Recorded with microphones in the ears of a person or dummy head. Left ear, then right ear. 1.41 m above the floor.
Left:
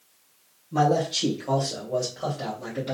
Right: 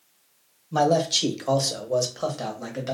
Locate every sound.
0.7 s a man speaking: 40° right (ahead or behind), 1.0 m; by 2.9 s 65° right (ahead or behind), 1.2 m